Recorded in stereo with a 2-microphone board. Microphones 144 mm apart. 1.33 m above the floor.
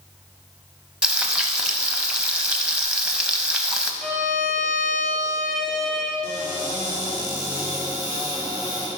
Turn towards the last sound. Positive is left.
turn(degrees=35)  # may be behind; listen again after turning